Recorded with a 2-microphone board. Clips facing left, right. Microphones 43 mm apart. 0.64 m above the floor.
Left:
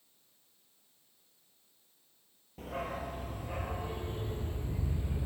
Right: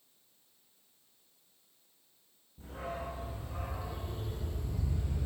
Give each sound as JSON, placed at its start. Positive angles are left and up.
{"t": 2.6, "sound": "a dog barking", "side_deg": 75, "distance_m": 5.0}